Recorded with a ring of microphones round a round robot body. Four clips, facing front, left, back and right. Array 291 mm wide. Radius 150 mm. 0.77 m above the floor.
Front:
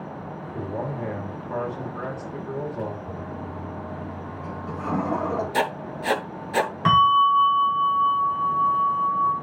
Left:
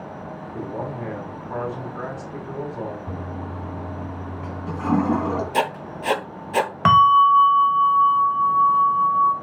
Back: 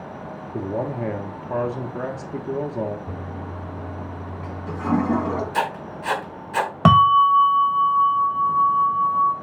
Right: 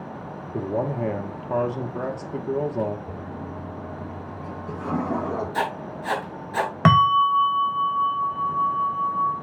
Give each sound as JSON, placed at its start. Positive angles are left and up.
{"t": 0.5, "sound": "a man speaking", "azimuth_deg": -130, "distance_m": 1.4}
{"t": 3.1, "sound": "a toilet flushing", "azimuth_deg": 120, "distance_m": 3.0}
{"t": 5.5, "sound": "writing", "azimuth_deg": 55, "distance_m": 0.8}
{"t": 6.8, "sound": "a bell", "azimuth_deg": -155, "distance_m": 1.0}